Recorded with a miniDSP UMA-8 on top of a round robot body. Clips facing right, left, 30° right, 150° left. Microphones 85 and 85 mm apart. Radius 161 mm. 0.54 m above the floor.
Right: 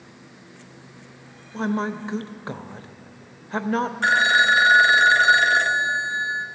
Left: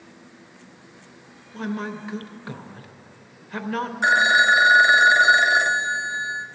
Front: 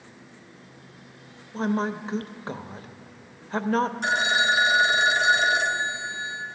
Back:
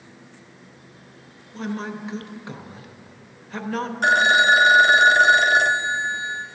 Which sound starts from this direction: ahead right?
A woman speaking, at 1.5 s.